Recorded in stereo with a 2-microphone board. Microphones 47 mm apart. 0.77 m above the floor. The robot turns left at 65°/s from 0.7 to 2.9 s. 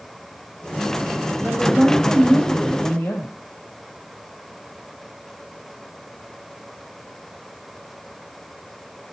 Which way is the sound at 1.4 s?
150° right.